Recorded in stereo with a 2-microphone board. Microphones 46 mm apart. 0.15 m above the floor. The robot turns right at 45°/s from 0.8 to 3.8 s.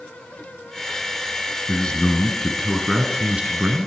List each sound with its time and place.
1.7 s a man speaking: 140° left, 1.4 m; by 3.9 s 125° right, 1.4 m